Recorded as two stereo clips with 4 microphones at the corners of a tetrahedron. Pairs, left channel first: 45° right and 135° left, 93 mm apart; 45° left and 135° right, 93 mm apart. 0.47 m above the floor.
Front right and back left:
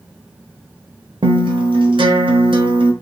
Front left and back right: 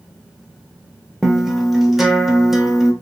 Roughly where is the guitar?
Behind left.